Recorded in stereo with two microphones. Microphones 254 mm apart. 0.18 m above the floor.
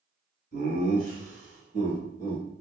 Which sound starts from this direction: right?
Laughter, at 0.5 s.